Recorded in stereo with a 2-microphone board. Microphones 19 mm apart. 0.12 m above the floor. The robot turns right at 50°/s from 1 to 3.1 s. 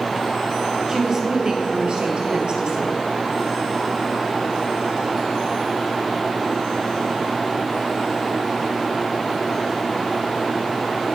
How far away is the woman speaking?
About 2.5 m.